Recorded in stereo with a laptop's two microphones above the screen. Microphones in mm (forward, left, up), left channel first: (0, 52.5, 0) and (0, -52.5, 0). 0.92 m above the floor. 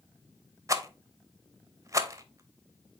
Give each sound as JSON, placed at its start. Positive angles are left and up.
{"t": 0.7, "sound": "a rattle", "side_deg": -30, "distance_m": 0.6}